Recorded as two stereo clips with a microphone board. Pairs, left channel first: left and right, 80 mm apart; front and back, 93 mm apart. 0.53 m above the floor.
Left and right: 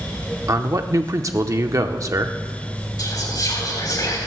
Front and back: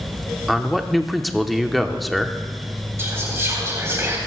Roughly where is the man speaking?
Right.